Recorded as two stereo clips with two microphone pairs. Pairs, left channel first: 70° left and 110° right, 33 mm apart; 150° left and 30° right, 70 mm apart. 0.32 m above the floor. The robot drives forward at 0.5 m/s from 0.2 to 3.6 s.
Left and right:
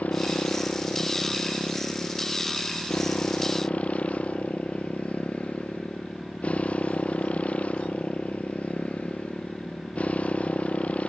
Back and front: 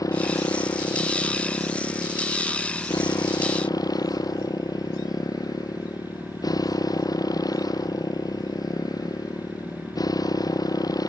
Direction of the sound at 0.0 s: 110° left.